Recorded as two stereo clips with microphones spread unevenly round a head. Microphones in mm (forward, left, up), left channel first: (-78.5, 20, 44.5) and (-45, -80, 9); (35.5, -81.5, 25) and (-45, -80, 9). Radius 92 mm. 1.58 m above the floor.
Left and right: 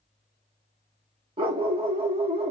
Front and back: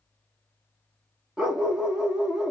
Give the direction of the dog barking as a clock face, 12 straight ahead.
3 o'clock.